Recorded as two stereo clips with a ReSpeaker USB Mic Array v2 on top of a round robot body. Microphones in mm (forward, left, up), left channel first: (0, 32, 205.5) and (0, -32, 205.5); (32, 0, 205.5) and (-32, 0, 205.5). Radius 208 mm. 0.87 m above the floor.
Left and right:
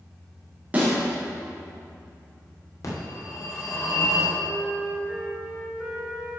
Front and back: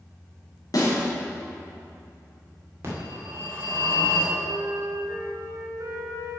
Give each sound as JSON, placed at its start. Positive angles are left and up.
{"t": 0.7, "sound": "a snare drum", "azimuth_deg": -25, "distance_m": 3.0}
{"t": 2.8, "sound": "a phone ringing", "azimuth_deg": 125, "distance_m": 2.5}
{"t": 4.4, "sound": "a flute", "azimuth_deg": -165, "distance_m": 1.6}